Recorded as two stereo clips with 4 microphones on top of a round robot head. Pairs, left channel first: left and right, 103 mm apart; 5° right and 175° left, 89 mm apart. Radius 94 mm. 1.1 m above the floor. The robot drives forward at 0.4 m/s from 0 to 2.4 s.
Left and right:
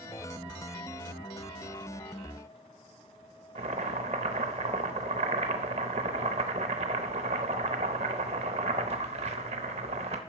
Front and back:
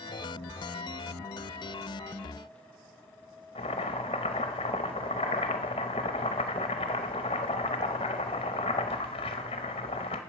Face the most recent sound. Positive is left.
turn(degrees=-50)